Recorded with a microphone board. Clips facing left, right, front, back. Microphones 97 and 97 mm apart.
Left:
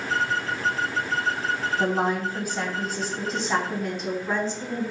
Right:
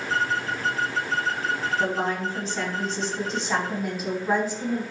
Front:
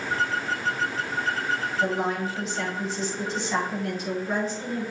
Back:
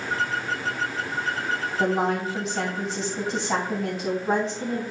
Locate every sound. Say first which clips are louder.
1.8 s a woman speaking: left 2 dB, back 4 dB; 160° left, 3.5 m; by 4.8 s 165° right, 3.5 m